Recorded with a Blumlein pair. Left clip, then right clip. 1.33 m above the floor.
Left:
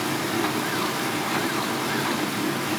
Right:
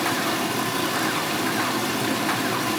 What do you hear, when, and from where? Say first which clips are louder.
0.0 s running water: right 2 dB; 60° right, 1.4 m